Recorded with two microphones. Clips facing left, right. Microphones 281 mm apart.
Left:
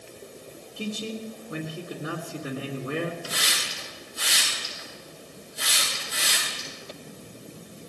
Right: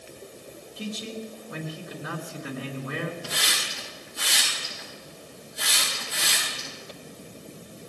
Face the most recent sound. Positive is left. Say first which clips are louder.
# even
turn(degrees=-85)